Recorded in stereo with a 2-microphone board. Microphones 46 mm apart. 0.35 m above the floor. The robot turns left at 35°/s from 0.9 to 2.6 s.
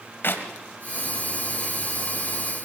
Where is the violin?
No violin in this recording.